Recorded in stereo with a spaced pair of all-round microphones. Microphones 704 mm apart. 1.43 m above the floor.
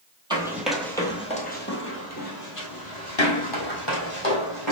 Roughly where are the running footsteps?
Centre.